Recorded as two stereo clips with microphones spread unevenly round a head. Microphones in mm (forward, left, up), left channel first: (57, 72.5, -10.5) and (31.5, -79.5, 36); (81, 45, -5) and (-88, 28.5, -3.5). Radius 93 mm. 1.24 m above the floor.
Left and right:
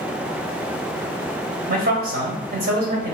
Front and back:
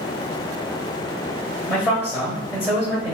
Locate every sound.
1.7 s a man speaking: 90° right, 0.9 m